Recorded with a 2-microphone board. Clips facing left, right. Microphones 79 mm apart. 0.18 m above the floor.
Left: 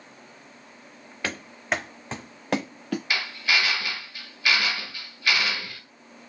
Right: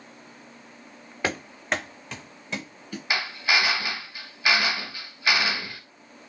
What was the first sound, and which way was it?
Running footsteps, 20° right (ahead or behind).